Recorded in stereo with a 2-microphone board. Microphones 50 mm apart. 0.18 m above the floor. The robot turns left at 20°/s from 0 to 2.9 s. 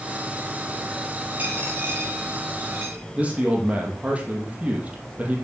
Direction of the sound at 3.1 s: 30° right (ahead or behind).